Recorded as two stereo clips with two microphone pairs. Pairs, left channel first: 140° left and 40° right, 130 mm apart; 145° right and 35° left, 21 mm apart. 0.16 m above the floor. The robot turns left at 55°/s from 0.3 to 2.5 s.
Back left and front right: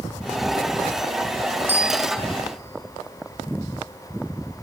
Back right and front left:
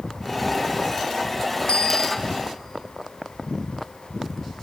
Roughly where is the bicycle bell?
Behind right.